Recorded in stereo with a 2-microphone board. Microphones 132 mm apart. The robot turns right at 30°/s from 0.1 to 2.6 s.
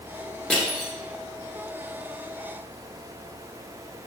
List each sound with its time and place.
0.5 s crushing: 5° left (ahead or behind), 0.7 m; by 0.9 s 5° right (ahead or behind), 0.7 m